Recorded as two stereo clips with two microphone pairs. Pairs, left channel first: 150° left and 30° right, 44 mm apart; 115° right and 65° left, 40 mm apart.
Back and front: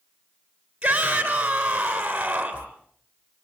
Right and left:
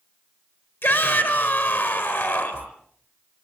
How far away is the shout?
About 4.5 m.